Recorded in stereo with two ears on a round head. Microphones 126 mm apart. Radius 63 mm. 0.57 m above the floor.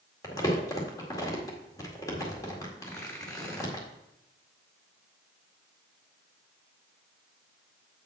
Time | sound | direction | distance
0.2 | crumpling | 25° left (ahead or behind) | 1.9 m
2.8 | tearing paper | 20° left (ahead or behind) | 3.5 m